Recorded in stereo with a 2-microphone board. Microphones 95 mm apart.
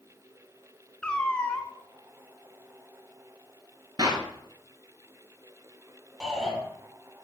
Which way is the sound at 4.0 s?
45° right (ahead or behind).